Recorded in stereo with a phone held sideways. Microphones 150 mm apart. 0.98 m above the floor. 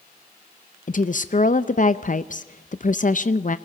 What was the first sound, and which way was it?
A woman speaking, 60° left (ahead or behind).